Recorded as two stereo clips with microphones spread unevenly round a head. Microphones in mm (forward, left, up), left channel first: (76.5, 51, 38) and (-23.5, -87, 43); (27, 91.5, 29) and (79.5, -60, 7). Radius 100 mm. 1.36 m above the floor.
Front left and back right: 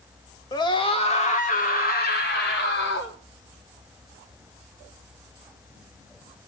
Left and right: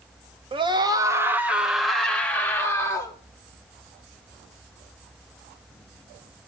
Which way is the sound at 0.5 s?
15° right.